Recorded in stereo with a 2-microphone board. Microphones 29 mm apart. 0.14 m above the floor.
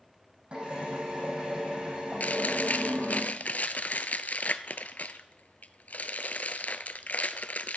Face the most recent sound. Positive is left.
turn(degrees=65)  # may be behind; listen again after turning